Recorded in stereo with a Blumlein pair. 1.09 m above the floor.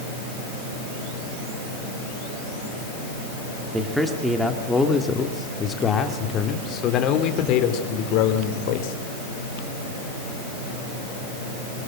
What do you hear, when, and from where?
3.7 s a man speaking: 5° right, 2.5 m; by 8.9 s 45° left, 3.5 m